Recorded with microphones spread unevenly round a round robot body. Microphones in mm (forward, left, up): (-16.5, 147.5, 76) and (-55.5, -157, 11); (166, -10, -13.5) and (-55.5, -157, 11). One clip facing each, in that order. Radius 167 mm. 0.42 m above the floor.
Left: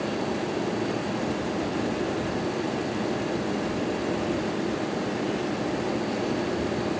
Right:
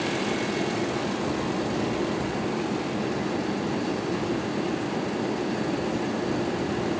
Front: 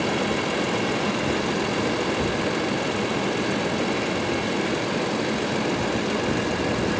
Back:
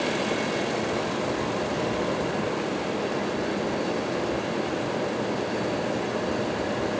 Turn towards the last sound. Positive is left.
No sound to turn to.